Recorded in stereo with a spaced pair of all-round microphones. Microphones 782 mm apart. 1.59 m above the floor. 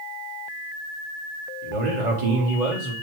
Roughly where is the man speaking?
Right.